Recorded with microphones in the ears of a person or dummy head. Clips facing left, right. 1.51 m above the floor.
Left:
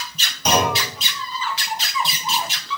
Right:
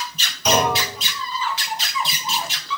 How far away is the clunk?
About 1.9 m.